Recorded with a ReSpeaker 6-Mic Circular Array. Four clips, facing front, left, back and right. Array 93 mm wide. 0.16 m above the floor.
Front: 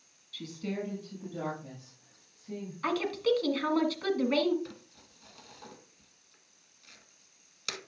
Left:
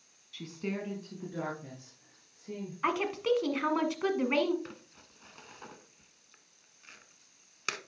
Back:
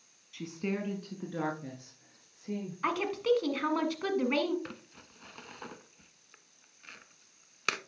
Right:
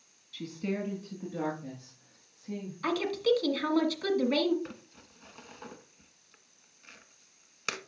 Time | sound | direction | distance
0.3 | a woman speaking | 165° left | 1.0 m
2.8 | a woman speaking | 115° left | 1.3 m
4.7 | crumpling | straight behind | 0.7 m